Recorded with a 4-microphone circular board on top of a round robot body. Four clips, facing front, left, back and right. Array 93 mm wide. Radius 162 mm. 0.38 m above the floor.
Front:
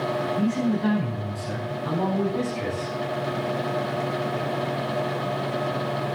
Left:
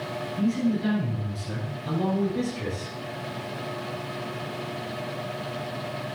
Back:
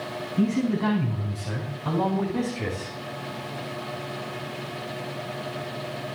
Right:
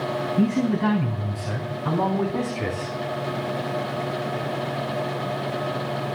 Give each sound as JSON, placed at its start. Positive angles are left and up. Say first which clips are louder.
{"t": 0.4, "sound": "a man speaking", "louder": "right 3 dB, back 3 dB", "azimuth_deg": -110, "distance_m": 6.0}